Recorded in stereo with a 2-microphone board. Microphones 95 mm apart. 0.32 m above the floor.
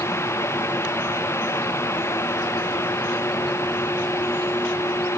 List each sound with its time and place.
Only background noise.